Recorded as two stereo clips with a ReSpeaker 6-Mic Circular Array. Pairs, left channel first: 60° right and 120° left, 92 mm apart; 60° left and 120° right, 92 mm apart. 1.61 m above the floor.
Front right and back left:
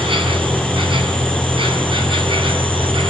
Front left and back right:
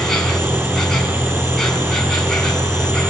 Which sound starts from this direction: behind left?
An insect, at 0.0 s.